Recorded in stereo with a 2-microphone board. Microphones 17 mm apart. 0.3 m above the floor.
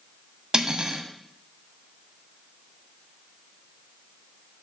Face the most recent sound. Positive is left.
turn(degrees=-50)  # may be behind; listen again after turning